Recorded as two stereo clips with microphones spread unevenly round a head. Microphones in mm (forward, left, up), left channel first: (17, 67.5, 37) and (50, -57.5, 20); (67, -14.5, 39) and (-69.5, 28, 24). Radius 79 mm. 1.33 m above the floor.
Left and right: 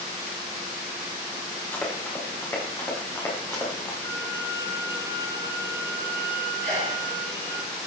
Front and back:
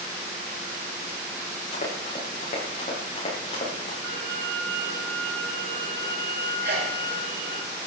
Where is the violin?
175° left, 5 m.